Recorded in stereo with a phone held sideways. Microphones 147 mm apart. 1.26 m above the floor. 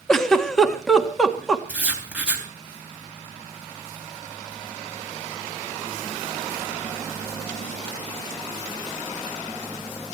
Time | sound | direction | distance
0.1 | a giggle | 5° left (ahead or behind) | 1.6 m
1.7 | writing | 10° right (ahead or behind) | 3 m